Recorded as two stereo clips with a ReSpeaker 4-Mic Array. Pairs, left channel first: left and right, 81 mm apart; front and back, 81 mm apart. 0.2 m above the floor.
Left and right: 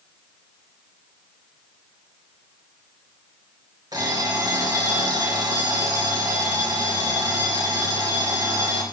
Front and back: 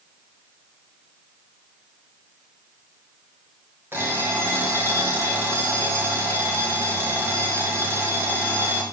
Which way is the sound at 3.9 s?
120° right.